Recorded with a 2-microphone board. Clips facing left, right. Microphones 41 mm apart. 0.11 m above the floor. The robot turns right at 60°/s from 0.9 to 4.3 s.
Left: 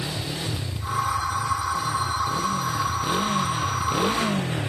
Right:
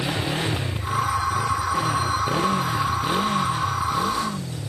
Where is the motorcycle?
145° right; by 4.7 s 60° left.